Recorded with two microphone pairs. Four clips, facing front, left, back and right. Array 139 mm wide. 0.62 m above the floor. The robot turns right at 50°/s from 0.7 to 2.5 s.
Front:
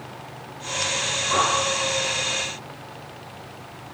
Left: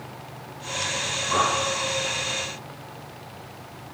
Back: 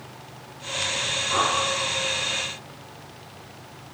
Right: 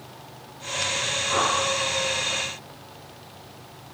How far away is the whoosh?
About 9 m.